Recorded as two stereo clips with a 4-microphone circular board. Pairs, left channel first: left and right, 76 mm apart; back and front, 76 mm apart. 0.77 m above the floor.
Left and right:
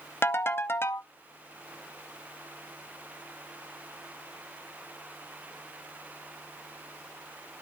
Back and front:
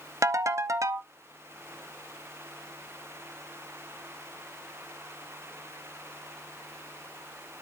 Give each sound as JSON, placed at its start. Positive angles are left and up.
{"t": 0.2, "sound": "a ringtone", "azimuth_deg": 35, "distance_m": 0.7}